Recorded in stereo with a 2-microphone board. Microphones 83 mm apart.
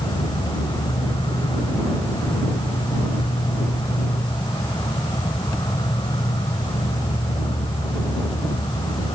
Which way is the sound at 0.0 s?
75° left (ahead or behind).